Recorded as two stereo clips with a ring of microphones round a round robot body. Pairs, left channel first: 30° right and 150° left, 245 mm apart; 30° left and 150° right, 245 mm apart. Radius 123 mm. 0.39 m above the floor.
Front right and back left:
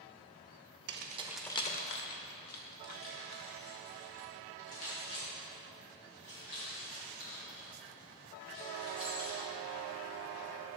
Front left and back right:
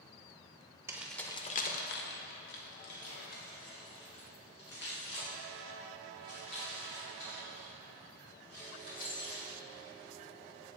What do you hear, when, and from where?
0.9 s keys jangling: 135° left, 0.6 m; by 9.5 s 20° right, 6.5 m